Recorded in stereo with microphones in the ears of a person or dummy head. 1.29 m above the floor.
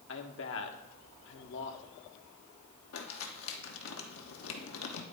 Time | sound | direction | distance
0.1 | a man speaking | 65° left (ahead or behind) | 1.2 m
2.9 | crumpling | 85° left | 1.2 m